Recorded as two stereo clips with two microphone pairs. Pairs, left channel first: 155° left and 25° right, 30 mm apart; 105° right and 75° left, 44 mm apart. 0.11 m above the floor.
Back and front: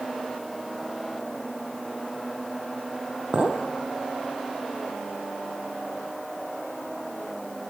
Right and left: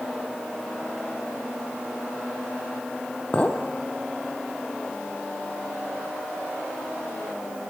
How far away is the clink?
About 1.9 m.